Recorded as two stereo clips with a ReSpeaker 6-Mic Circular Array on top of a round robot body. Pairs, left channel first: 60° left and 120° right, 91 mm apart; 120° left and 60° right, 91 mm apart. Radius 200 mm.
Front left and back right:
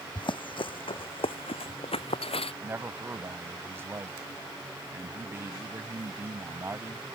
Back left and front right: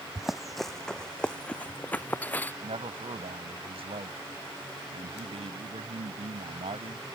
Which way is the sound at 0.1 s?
25° left.